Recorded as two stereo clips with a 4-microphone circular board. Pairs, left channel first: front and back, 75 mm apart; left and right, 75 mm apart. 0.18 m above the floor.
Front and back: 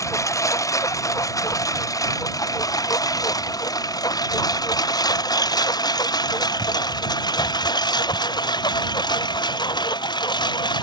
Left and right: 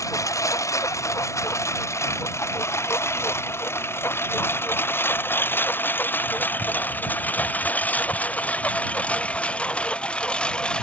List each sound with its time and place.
0.0 s a lawn mower: 45° left; by 10.8 s 15° left